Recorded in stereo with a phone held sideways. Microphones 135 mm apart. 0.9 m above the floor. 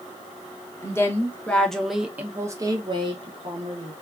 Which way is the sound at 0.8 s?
20° left (ahead or behind).